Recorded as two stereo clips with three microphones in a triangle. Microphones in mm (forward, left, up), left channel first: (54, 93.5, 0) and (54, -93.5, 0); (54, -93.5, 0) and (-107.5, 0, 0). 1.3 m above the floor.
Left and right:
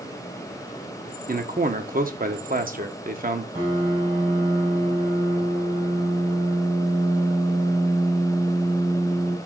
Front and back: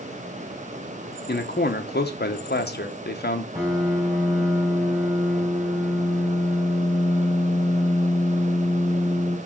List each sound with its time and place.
1.3 s a man speaking: 55° right, 1.2 m
3.5 s a piano: 140° right, 4 m